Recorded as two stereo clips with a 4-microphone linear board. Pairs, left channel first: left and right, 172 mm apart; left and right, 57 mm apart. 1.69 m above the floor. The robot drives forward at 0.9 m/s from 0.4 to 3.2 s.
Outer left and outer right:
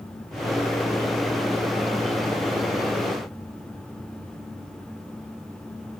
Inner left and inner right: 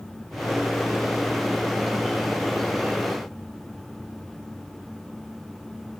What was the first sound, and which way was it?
Only background noise.